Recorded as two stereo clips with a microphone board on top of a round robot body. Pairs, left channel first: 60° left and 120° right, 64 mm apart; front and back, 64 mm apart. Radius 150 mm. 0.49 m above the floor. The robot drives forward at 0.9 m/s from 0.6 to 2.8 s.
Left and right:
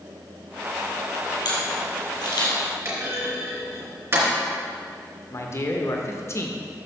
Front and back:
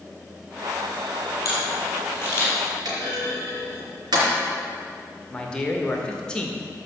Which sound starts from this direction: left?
A man speaking, at 5.3 s.